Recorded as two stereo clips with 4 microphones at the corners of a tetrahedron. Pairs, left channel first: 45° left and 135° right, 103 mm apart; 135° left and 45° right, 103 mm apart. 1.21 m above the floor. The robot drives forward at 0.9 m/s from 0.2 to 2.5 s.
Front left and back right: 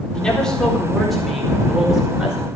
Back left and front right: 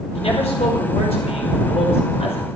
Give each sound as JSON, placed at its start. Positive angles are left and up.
{"t": 0.1, "sound": "a man speaking", "azimuth_deg": 125, "distance_m": 4.0}